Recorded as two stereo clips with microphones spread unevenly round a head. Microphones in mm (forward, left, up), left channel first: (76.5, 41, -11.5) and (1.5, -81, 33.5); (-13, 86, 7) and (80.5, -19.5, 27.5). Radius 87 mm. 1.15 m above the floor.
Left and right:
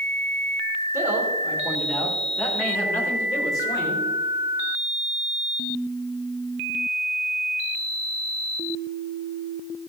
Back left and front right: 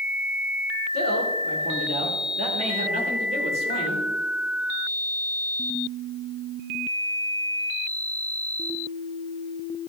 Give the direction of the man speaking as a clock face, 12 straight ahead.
2 o'clock.